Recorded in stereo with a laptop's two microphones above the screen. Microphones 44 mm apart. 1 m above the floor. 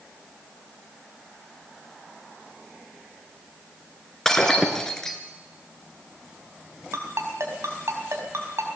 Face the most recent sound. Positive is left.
turn(degrees=-85)